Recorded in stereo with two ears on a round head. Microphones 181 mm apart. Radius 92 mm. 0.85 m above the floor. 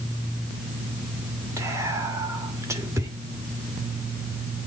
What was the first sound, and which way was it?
Whispering, 15° right (ahead or behind).